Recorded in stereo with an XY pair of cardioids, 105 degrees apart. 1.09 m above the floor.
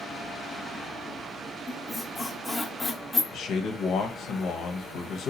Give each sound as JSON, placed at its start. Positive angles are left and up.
{"t": 1.7, "sound": "a squeak", "azimuth_deg": 10, "distance_m": 0.8}
{"t": 3.3, "sound": "a man speaking", "azimuth_deg": 70, "distance_m": 0.7}